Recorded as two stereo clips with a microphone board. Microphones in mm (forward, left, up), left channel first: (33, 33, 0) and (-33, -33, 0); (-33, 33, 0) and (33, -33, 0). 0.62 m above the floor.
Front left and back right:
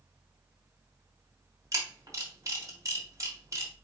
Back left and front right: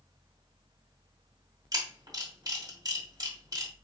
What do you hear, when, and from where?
1.7 s a camera shutter: 85° right, 1.9 m